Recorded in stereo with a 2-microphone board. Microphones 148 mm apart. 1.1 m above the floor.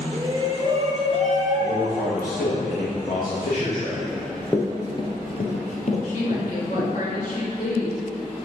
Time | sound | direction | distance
0.1 | a shout | 25° right (ahead or behind) | 1.8 m
1.6 | a man speaking | 70° left (ahead or behind) | 1.6 m
4.0 | running footsteps | 5° right (ahead or behind) | 1.1 m
6.0 | a woman speaking | 60° left (ahead or behind) | 2.5 m